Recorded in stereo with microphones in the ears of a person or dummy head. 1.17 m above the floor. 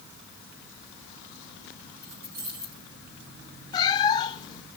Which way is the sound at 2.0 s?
60° right (ahead or behind).